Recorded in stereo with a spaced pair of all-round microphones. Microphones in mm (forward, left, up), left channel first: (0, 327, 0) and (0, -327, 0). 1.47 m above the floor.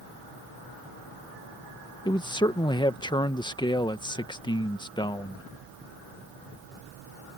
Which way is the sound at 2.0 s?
5° left (ahead or behind).